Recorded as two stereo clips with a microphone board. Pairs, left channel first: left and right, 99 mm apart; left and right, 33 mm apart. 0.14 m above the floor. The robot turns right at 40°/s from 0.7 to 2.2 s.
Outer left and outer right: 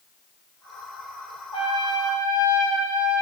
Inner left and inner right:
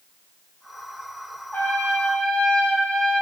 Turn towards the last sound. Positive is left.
turn(degrees=35)  # may be behind; listen again after turning